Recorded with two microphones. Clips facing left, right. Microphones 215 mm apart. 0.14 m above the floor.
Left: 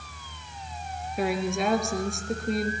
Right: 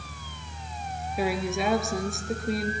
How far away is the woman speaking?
About 1.9 m.